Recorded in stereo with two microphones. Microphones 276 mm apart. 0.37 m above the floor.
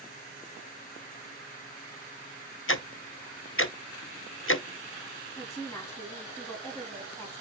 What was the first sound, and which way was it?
Ticking, 50° left (ahead or behind).